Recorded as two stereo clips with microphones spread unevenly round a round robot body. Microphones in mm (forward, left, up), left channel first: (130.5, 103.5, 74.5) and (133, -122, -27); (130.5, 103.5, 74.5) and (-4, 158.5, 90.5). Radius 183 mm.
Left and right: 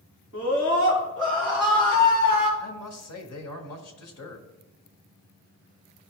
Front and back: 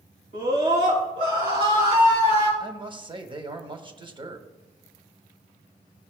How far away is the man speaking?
About 1.4 m.